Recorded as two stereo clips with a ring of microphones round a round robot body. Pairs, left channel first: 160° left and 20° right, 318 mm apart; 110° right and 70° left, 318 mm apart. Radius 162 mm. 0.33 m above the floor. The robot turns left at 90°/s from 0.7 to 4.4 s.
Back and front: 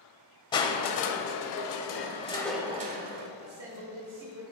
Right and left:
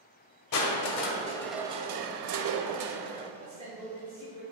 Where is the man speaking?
25° left, 1.5 m; by 4.4 s 65° right, 1.5 m.